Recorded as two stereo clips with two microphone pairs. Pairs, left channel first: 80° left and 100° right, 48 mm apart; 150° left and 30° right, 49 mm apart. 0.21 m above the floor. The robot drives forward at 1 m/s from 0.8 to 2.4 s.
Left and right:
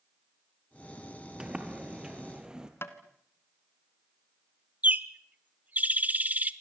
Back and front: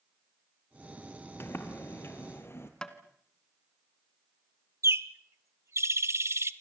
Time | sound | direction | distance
1.4 | a sliding door | 175° right | 2 m
2.8 | tapping | 80° left | 1.7 m
4.8 | a bird | 50° right | 0.9 m